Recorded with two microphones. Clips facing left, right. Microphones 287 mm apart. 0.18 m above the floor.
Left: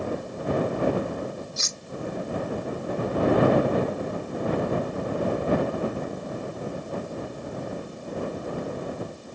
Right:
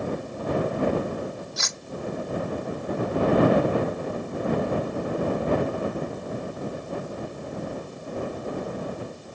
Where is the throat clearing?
I don't hear throat clearing.